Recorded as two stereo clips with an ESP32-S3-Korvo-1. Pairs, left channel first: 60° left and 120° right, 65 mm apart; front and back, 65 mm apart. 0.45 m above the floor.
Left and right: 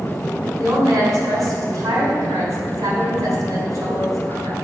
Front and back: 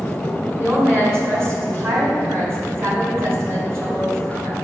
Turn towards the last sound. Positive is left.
turn(degrees=-135)